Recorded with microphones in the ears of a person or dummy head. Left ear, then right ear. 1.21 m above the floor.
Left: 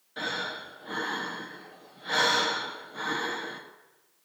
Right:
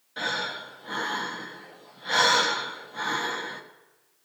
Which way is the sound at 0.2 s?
10° right (ahead or behind).